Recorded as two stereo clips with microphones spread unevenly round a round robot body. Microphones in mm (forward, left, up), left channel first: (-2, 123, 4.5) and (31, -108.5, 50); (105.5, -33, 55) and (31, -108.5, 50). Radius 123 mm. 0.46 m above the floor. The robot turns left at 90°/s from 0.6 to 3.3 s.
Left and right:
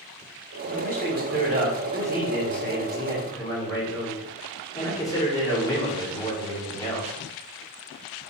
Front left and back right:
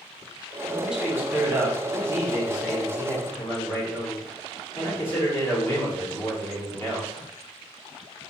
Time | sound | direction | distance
0.7 | a man speaking | 45° right | 1.4 m